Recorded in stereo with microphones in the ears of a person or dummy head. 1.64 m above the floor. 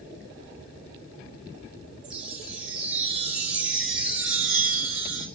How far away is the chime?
About 2.5 m.